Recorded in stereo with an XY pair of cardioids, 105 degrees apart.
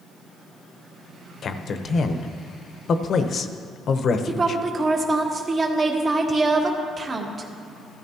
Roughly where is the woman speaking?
Ahead right.